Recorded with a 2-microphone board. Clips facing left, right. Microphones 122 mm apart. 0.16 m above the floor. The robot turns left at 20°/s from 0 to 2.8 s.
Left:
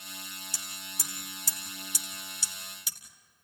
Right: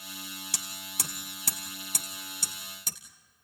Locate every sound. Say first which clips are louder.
0.5 s hammering: right 3 dB; 75° right (ahead or behind), 1.7 m; by 3.0 s 45° right (ahead or behind), 1.7 m